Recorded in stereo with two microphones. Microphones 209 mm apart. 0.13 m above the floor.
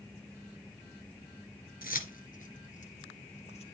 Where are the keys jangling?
45° left (ahead or behind), 1.4 m; by 3.6 s 30° left (ahead or behind), 2 m.